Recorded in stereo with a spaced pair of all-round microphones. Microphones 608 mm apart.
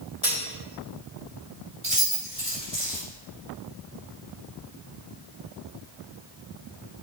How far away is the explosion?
No explosion in this recording.